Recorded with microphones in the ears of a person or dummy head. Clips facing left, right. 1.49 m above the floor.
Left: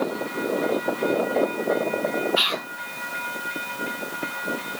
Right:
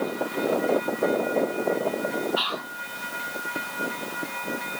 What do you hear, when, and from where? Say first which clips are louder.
2.4 s whispering: left 2 dB; 25° left (ahead or behind), 0.7 m